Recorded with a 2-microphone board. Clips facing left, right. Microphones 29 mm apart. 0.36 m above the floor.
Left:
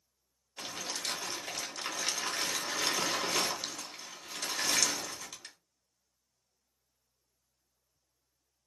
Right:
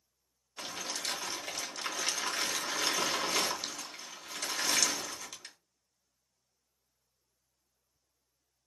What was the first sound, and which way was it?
Crumpling, centre (ahead or behind).